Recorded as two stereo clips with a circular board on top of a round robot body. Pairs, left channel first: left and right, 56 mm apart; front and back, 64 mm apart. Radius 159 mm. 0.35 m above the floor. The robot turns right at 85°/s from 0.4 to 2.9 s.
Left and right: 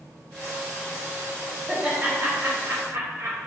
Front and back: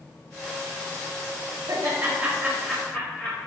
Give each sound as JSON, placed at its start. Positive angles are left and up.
{"t": 1.7, "sound": "laughter", "azimuth_deg": -170, "distance_m": 2.5}